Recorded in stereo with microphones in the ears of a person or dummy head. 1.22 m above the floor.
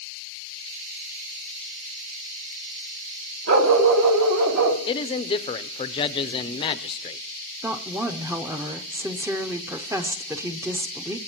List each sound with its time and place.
3.5 s a dog barking: 55° right (ahead or behind), 1.6 m
4.9 s a man speaking: 30° left (ahead or behind), 0.6 m
7.6 s a woman speaking: 10° right (ahead or behind), 0.6 m